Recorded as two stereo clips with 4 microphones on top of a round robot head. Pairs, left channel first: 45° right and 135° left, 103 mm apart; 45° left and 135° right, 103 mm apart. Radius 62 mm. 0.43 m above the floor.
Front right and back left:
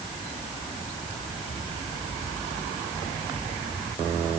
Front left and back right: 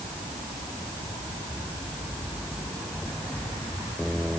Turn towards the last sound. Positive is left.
No sound to turn to.